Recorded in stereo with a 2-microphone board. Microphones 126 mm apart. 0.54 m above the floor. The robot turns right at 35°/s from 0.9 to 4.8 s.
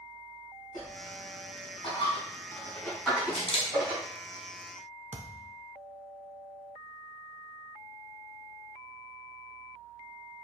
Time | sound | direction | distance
0.7 | a dropped coin | 75° left (ahead or behind) | 2.5 m
3.3 | a camera shutter | 50° left (ahead or behind) | 1.0 m
5.1 | a thud | 60° right (ahead or behind) | 0.6 m